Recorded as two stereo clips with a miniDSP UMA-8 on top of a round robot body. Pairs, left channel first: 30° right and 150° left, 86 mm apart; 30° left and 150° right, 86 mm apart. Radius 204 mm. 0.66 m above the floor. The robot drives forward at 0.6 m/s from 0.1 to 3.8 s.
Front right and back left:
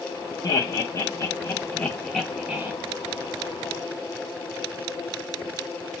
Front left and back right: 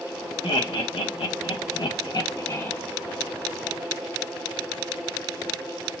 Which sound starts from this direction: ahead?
Laughter, at 0.4 s.